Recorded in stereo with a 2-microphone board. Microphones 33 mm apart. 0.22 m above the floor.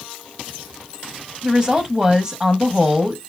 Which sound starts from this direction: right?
A woman speaking, at 1.4 s.